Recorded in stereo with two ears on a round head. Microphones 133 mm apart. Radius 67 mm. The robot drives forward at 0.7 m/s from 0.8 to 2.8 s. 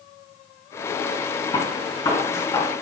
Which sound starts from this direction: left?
A gunshot, at 1.5 s.